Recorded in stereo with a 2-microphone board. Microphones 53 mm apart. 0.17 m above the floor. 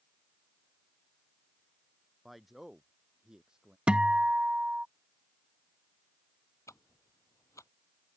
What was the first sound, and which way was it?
A man speaking, centre (ahead or behind).